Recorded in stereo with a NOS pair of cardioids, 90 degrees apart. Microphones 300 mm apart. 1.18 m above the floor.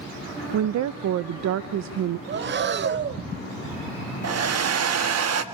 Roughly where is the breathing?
Ahead right.